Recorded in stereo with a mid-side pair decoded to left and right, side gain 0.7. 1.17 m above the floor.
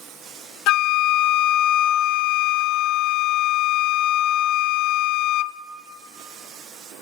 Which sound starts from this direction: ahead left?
A flute, at 0.7 s.